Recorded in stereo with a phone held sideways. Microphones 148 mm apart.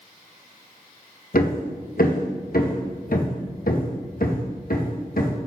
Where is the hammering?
70° left (ahead or behind), 1.2 m.